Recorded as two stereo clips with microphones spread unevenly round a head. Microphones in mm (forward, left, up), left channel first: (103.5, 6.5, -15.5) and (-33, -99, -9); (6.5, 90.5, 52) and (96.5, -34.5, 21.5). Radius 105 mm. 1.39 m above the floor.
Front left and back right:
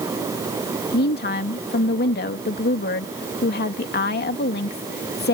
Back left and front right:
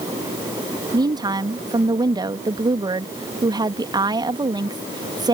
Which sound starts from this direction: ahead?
A woman speaking, at 0.9 s.